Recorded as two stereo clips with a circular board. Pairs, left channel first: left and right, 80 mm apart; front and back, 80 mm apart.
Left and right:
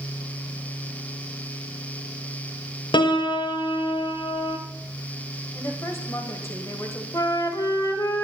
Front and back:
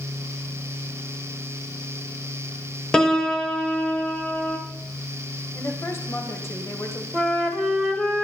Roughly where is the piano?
Left.